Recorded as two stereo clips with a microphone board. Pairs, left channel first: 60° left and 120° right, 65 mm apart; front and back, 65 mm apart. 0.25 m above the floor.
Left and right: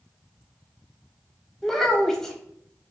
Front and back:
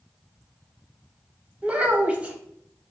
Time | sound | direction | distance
1.6 | a child speaking | 135° left | 0.6 m